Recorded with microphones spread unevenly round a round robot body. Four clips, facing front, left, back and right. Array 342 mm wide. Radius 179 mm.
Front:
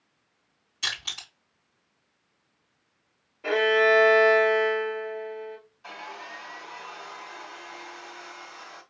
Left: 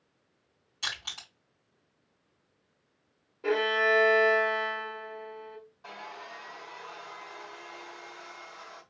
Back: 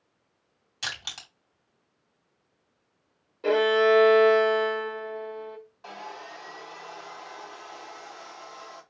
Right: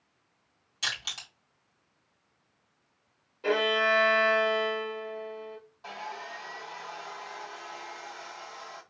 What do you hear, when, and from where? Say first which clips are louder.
0.8 s crushing: right 2 dB, front 1 dB; 170° right, 2.5 m
3.4 s a violin: even, back 1 dB; 160° right, 2.5 m
5.8 s sawing: right 5 dB, even; 165° right, 2.5 m